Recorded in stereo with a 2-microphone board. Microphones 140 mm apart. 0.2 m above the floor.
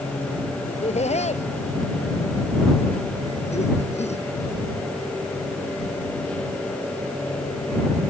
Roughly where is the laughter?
Left.